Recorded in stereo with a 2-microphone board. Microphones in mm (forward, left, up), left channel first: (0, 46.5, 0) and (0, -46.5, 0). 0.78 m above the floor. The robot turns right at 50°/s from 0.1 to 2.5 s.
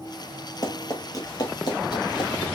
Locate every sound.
0.6 s running footsteps: 40° left (ahead or behind), 0.9 m; by 2.5 s 60° left (ahead or behind), 1.4 m